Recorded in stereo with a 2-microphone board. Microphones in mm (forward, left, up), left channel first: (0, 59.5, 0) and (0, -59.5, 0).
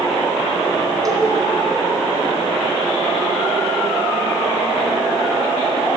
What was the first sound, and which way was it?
A cowbell, 35° right (ahead or behind).